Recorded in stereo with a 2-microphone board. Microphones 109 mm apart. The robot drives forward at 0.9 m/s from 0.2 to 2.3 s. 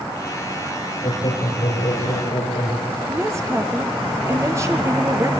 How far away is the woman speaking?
About 3 m.